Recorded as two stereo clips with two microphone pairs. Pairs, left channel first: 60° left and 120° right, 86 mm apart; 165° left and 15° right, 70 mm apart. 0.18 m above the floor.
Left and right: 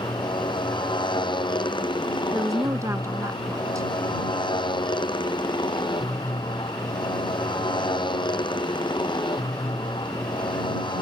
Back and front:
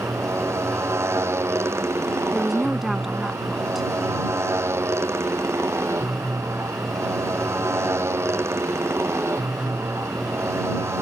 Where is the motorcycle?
35° left.